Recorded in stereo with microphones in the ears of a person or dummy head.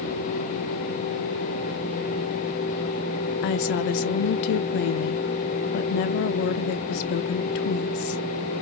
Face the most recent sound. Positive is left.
turn(degrees=55)  # may be behind; listen again after turning